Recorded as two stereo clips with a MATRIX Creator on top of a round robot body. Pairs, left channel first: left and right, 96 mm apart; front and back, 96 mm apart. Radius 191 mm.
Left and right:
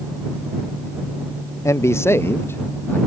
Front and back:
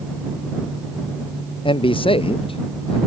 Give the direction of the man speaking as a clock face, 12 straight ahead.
11 o'clock.